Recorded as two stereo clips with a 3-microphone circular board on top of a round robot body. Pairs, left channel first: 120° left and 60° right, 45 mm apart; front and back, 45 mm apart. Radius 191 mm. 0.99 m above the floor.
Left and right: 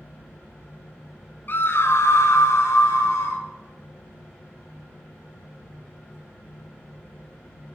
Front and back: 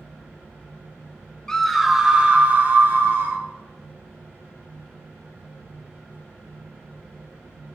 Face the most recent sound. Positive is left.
turn(degrees=145)